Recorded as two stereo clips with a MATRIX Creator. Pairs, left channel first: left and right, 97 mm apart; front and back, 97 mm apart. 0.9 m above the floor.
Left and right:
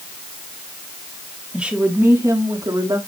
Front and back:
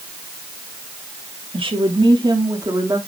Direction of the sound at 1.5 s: 170° right.